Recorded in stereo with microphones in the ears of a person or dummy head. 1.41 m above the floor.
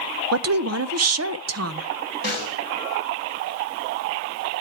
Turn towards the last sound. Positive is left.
turn(degrees=-50)  # may be behind; listen again after turning